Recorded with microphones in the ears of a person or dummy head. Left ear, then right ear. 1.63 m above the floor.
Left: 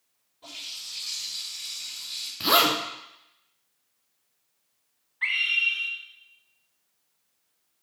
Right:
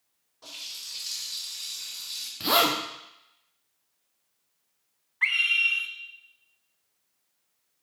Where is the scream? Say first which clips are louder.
Right 1 dB; 30° right (ahead or behind), 0.7 m.